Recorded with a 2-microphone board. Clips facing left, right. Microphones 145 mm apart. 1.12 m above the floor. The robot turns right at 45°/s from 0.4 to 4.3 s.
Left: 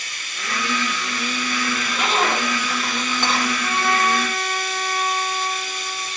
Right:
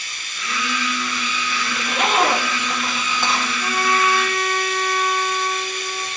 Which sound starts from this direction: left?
Running water, at 0.0 s.